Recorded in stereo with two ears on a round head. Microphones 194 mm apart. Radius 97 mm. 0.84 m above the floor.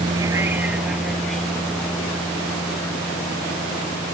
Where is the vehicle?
20° right (ahead or behind); by 4.2 s 15° left (ahead or behind).